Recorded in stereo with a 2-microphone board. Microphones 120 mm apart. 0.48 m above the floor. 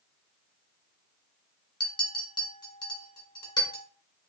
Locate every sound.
1.8 s a clink: 35° left (ahead or behind), 1.2 m